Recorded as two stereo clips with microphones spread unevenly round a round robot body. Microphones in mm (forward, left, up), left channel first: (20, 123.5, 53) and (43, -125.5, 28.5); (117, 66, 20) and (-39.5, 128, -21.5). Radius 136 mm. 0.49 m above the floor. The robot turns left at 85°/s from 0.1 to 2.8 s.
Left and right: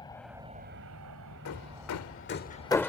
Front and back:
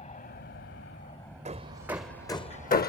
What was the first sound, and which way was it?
An aircraft, 20° left.